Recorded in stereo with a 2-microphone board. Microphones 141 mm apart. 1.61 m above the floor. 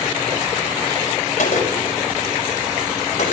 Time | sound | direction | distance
1.4 | a gunshot | 80° left | 7 m